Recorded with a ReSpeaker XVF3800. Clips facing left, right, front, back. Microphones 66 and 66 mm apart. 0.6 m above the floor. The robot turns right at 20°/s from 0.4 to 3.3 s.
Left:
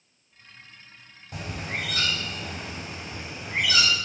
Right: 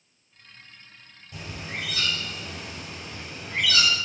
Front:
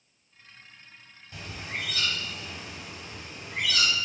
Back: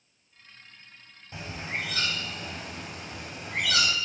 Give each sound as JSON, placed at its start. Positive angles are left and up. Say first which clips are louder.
{"t": 1.3, "sound": "a bird", "louder": "left 3 dB, back 2 dB", "azimuth_deg": 115, "distance_m": 1.4}